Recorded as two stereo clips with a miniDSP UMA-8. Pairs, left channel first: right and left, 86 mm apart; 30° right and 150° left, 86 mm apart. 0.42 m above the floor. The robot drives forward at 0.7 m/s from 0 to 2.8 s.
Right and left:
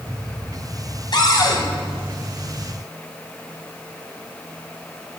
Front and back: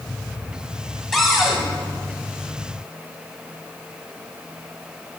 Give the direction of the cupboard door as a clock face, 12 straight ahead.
4 o'clock.